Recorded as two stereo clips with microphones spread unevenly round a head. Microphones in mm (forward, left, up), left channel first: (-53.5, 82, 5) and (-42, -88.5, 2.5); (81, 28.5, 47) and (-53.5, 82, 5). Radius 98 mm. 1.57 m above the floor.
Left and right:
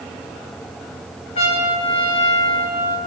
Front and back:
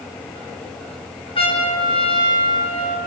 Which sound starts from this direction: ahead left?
A trumpet, at 1.4 s.